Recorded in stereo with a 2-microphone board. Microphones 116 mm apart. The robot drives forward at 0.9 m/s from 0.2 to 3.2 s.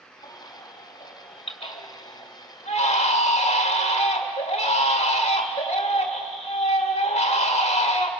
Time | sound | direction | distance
0.2 | a baby crying | 35° left (ahead or behind) | 3 m